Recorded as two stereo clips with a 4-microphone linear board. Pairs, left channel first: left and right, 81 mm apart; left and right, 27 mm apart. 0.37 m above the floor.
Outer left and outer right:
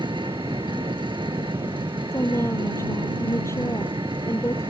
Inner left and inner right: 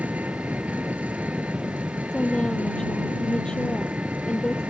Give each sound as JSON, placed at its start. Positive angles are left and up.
{"t": 0.0, "sound": "an engine running", "side_deg": -80}
{"t": 2.1, "sound": "a woman speaking", "side_deg": 35}